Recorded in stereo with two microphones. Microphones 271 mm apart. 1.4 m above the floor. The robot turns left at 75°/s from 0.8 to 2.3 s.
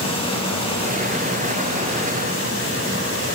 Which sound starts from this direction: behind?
Running water, at 0.0 s.